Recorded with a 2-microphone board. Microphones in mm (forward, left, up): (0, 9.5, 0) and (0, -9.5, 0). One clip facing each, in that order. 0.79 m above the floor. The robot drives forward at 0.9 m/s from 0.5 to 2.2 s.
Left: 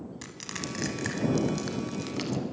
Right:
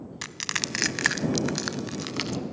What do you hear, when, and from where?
0.2 s crushing: 35° right (ahead or behind), 1.0 m; by 2.4 s 30° right (ahead or behind), 1.2 m